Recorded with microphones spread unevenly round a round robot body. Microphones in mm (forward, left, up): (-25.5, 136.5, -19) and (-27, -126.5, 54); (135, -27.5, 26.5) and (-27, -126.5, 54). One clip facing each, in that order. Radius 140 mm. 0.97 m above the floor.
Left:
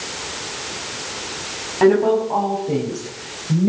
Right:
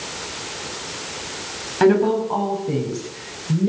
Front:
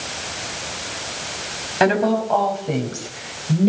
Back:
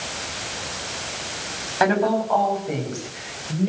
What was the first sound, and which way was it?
A woman speaking, 30° right.